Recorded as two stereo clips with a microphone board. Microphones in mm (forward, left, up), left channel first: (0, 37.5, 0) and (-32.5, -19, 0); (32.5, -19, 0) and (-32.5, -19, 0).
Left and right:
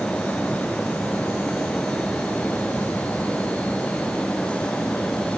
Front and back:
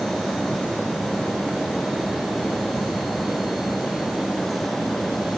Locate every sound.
Only background noise.